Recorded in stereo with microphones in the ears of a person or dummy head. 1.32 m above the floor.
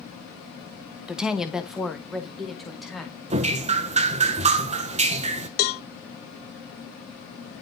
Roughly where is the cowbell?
Left.